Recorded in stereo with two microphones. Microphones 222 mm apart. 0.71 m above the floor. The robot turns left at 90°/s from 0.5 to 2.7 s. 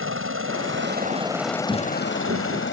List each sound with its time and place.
0.0 s a helicopter: 70° right (ahead or behind); by 2.7 s 55° left (ahead or behind)
1.7 s footsteps: 20° right; by 2.6 s 105° right